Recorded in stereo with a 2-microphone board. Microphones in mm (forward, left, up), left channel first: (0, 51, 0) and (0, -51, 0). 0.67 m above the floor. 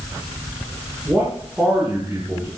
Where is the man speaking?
10° right (ahead or behind), 8 m.